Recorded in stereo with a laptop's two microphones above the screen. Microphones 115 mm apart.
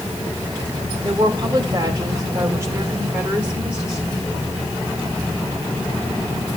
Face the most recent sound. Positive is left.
turn(degrees=-5)  # may be behind; listen again after turning